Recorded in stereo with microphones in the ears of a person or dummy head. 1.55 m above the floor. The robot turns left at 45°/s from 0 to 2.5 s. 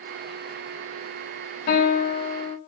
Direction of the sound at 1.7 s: 95° left.